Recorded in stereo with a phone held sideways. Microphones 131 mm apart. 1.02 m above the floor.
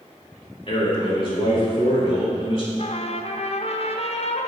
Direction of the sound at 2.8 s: 55° left (ahead or behind).